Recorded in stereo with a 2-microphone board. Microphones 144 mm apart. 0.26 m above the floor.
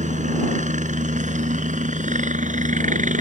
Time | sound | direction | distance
0.0 | a helicopter | 60° right (ahead or behind) | ?